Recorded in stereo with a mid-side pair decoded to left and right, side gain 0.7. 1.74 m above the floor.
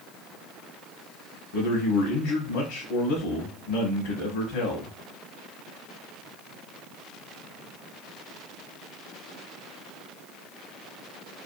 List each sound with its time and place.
1.5 s a man speaking: 70° left, 1.0 m